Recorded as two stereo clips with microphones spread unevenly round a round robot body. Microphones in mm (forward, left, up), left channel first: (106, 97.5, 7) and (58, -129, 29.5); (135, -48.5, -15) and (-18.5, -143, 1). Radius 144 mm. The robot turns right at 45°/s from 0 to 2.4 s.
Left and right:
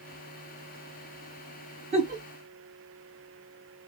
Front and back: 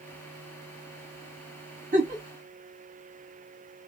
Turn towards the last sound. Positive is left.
turn(degrees=-130)